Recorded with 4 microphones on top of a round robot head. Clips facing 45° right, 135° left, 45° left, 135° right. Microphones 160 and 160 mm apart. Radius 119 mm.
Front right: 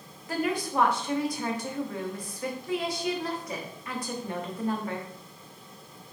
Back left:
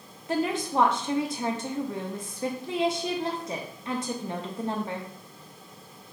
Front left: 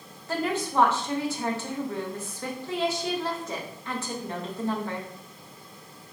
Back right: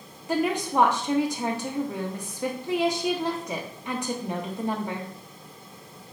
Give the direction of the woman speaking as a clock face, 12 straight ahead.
6 o'clock.